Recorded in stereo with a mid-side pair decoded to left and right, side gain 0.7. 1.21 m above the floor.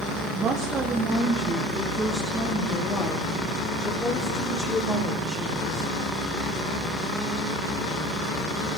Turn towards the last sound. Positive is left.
turn(degrees=40)